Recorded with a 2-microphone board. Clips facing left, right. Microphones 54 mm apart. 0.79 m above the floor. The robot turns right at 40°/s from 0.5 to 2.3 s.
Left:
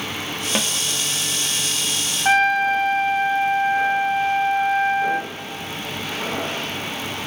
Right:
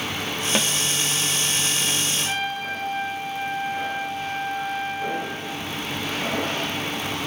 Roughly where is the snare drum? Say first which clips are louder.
Even; centre.